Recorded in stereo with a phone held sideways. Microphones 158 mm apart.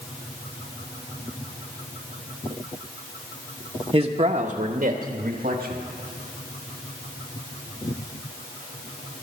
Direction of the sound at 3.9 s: 35° right (ahead or behind).